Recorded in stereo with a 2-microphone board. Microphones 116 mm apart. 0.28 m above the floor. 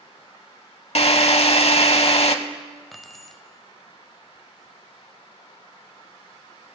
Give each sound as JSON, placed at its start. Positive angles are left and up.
{"t": 0.9, "sound": "a drill", "side_deg": 60, "distance_m": 0.7}
{"t": 2.9, "sound": "keys jangling", "side_deg": 0, "distance_m": 1.0}